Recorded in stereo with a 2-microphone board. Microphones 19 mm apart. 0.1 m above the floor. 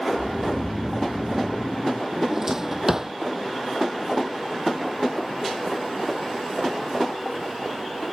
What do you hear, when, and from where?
0.1 s snoring: 10° right (ahead or behind)
2.1 s a drawer: 25° right (ahead or behind)